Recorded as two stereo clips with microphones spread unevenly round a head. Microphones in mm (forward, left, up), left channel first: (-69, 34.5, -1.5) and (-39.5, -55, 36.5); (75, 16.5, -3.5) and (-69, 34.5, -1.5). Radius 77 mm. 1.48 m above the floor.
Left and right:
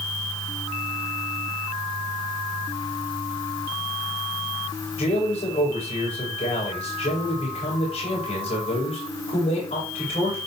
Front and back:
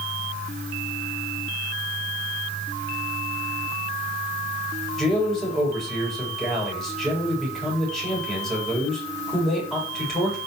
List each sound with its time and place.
5.0 s a man speaking: 80° left, 8.5 m